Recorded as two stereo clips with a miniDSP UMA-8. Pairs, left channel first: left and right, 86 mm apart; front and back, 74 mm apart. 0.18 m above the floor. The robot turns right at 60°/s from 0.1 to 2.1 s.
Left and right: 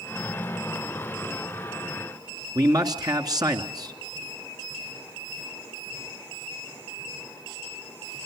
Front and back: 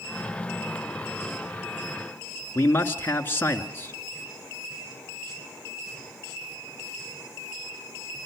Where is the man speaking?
55° right, 1.9 m.